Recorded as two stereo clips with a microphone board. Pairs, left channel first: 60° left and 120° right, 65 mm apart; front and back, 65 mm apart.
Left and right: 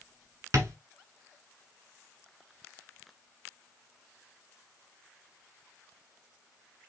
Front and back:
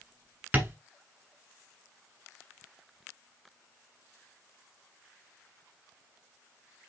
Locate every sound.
0.5 s tapping: 130° right, 1.6 m